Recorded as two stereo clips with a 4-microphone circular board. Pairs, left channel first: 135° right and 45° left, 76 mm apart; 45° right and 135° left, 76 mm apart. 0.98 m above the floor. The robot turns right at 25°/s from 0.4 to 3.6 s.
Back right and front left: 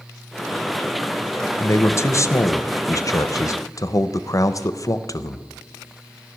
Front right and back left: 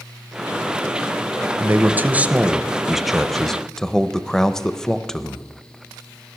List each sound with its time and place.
1.6 s a man speaking: 175° right, 0.6 m; by 5.5 s 125° right, 0.6 m